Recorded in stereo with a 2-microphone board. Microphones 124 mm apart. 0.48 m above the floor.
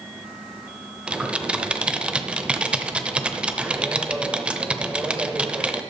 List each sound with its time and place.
1.1 s typing on a keyboard: 10° right (ahead or behind), 0.8 m